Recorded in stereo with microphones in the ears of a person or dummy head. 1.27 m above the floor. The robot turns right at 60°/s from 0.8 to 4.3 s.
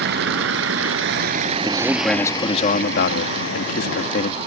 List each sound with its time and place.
0.0 s a vehicle: 60° right (ahead or behind); by 4.5 s 25° left (ahead or behind)
1.6 s a man speaking: 25° right; by 4.4 s 135° left